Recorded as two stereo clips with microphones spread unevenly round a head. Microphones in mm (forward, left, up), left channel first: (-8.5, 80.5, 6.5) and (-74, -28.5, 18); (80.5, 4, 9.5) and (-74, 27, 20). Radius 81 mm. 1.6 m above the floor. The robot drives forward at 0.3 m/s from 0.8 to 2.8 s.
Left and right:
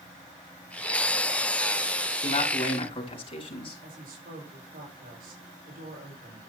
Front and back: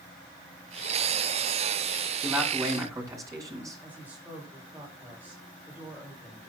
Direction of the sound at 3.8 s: 110° right.